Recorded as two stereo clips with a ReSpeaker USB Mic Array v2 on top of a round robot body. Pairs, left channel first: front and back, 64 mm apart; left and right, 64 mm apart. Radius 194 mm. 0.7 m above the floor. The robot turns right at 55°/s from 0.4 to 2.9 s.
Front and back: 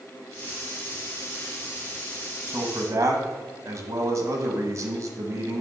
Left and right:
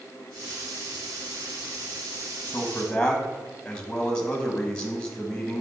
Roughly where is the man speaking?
Behind left.